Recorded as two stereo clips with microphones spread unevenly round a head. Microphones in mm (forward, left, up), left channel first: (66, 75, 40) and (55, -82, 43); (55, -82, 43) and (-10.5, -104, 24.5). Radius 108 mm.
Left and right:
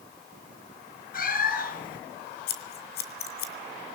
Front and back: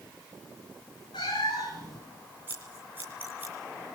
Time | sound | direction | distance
1.1 | a cat meowing | 60° left | 4 m
2.5 | scissors | 110° left | 2 m